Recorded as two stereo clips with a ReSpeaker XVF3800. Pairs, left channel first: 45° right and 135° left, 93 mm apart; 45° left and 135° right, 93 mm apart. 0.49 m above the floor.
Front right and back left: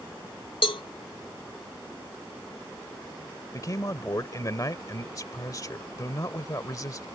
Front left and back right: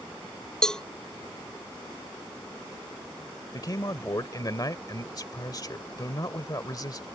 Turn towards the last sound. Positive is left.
turn(degrees=5)